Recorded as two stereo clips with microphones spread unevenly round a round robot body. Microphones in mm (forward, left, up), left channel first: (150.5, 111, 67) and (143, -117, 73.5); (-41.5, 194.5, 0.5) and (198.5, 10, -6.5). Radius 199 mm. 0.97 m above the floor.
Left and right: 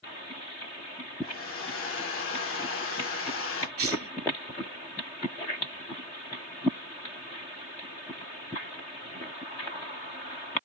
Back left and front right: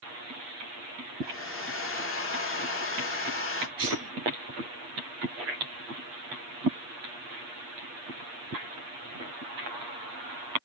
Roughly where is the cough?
Behind right.